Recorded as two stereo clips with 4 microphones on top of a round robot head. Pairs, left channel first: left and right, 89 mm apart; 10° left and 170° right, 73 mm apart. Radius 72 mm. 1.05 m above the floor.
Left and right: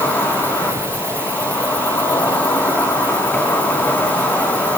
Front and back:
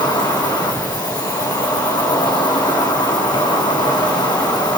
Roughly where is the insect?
Ahead.